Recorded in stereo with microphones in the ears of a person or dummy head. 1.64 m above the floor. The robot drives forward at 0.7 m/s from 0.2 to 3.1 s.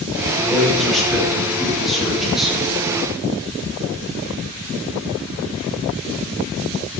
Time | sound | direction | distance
0.4 | a man speaking | 5° right (ahead or behind) | 4 m